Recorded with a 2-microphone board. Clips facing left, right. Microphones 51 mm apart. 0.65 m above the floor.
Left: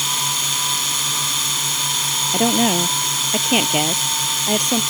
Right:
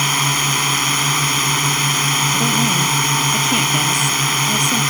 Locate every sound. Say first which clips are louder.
0.0 s a drone: right 6 dB; 50° right (ahead or behind)
2.3 s a woman speaking: even; 35° left (ahead or behind)